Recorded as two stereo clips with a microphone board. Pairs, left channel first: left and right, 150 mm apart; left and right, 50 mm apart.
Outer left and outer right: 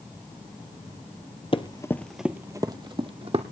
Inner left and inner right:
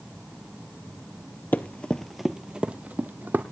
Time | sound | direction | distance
1.5 | running footsteps | 40° left (ahead or behind) | 0.9 m